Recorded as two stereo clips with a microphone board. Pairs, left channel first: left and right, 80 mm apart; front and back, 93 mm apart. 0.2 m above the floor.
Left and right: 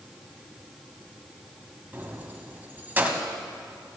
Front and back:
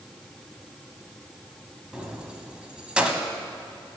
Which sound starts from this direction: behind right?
Keys jangling, at 1.9 s.